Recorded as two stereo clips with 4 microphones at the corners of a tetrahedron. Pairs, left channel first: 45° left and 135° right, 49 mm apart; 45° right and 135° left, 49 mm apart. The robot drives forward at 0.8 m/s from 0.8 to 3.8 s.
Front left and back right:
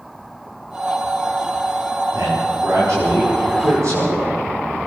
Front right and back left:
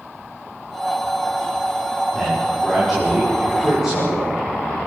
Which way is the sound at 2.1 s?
135° right.